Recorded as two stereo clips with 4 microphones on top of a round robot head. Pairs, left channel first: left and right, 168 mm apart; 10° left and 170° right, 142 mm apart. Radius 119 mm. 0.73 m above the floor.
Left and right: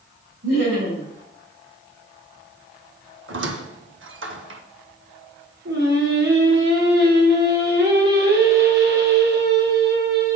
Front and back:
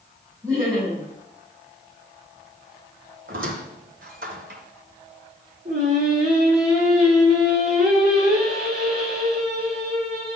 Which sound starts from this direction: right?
Laughter, at 0.4 s.